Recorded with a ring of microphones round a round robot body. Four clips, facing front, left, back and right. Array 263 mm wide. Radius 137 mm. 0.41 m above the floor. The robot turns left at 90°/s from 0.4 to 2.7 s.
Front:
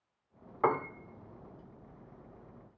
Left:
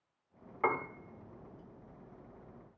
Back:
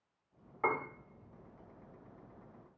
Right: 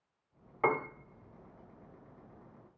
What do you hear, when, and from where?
0.6 s a piano: 30° right, 0.6 m; by 0.9 s 55° right, 0.6 m